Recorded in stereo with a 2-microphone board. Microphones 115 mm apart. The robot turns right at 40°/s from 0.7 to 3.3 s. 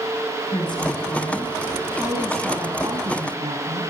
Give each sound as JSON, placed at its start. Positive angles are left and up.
{"t": 0.5, "sound": "a woman speaking", "azimuth_deg": 140, "distance_m": 5.5}